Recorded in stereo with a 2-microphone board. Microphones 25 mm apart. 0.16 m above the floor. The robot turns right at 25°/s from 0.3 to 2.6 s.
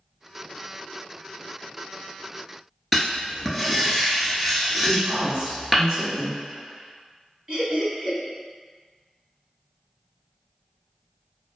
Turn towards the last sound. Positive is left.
turn(degrees=-35)  # may be behind; listen again after turning